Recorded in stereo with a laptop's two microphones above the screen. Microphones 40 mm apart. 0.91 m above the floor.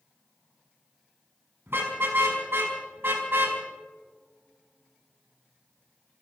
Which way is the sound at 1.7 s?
75° right (ahead or behind).